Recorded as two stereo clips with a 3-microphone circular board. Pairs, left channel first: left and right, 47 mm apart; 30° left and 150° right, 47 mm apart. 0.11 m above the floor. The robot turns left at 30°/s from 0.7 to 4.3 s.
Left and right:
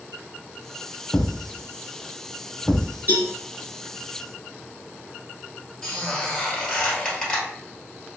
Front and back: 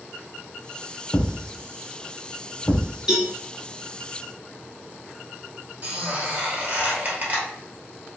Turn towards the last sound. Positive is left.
turn(degrees=170)